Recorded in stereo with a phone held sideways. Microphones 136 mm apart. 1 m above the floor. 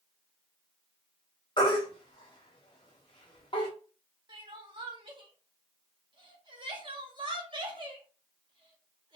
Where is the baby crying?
35° left (ahead or behind), 1.1 m.